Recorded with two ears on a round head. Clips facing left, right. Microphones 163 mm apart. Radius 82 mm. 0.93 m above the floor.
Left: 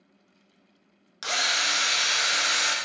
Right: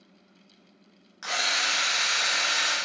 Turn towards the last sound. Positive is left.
turn(degrees=45)  # may be behind; listen again after turning